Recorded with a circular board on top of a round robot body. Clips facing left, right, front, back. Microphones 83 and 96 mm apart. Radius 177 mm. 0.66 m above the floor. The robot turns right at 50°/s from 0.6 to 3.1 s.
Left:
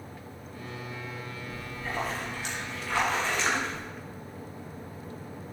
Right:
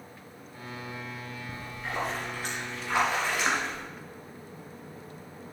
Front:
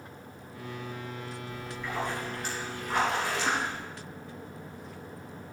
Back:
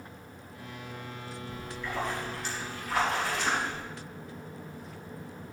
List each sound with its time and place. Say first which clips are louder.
1.5 s a splash: even, even; 95° right, 3 m; by 3.8 s 10° right, 3 m